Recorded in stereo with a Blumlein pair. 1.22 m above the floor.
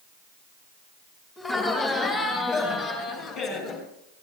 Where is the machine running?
No machine running in this recording.